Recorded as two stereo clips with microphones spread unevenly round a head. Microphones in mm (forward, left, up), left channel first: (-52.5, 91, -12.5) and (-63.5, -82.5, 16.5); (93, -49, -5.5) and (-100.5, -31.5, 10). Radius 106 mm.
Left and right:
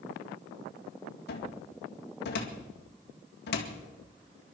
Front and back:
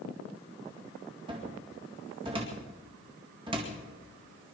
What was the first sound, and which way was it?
A cupboard door, 105° left.